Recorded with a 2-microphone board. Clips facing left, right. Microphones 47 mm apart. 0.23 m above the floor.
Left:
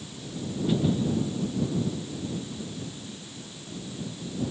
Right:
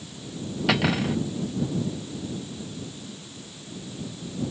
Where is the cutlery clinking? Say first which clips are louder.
Right 2 dB; 85° right.